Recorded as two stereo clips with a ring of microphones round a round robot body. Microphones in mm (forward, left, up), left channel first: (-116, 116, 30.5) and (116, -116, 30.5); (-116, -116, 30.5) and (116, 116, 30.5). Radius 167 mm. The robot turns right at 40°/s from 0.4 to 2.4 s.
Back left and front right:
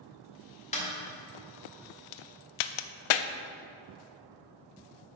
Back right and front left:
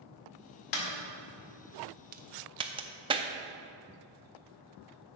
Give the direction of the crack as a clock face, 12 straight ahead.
8 o'clock.